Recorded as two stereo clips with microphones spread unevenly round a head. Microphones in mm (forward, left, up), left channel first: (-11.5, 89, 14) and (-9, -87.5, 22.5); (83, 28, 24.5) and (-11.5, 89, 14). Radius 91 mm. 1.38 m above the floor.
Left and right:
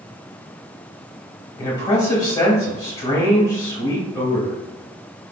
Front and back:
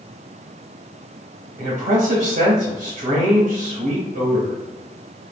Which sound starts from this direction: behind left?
A man speaking, at 1.6 s.